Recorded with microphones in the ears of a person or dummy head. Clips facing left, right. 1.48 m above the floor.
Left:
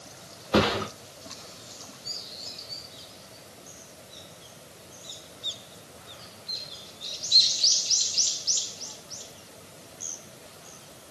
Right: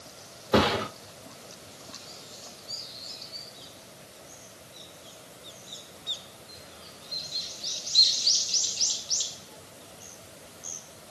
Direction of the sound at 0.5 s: 50° right (ahead or behind).